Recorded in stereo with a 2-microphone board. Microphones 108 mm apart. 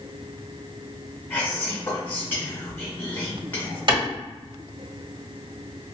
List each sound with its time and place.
1.3 s whispering: 20° left (ahead or behind), 1.0 m
3.9 s a clap: 45° right (ahead or behind), 1.6 m